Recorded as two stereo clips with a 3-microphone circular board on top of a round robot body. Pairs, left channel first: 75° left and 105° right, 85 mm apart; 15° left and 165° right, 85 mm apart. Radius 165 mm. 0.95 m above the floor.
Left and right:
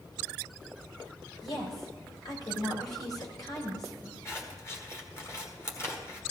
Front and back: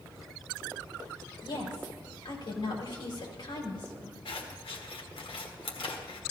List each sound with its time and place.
1.4 s a woman speaking: 35° left, 3.5 m
4.2 s scissors: 15° left, 1.4 m